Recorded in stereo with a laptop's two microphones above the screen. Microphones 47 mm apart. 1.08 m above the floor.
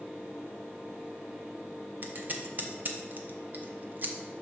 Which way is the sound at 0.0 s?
30° right (ahead or behind).